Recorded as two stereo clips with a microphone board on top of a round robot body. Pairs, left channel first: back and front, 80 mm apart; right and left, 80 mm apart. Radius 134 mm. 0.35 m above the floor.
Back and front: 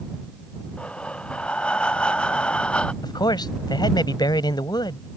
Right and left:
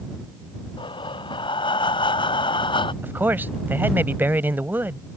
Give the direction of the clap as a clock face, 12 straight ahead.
I don't hear a clap.